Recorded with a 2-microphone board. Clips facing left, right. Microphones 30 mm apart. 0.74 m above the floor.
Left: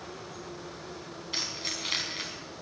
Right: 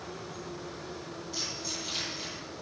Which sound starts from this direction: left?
Keys jangling, at 1.3 s.